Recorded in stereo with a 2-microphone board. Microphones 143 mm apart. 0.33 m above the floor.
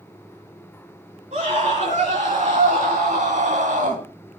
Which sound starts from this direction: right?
A scream, at 1.3 s.